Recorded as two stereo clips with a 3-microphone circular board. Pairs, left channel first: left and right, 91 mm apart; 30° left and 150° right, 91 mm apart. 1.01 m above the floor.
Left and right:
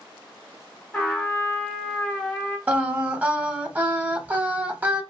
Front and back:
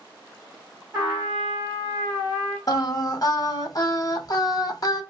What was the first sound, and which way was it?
A trumpet, 160° left.